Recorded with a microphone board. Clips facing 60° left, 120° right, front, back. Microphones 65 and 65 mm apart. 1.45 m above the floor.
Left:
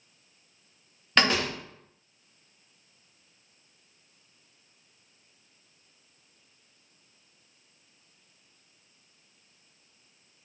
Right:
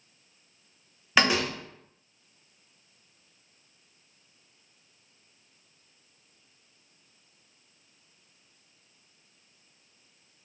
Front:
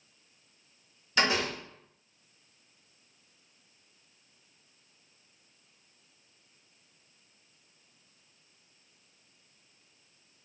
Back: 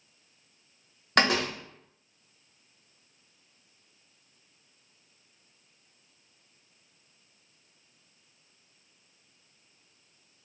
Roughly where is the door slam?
Behind left.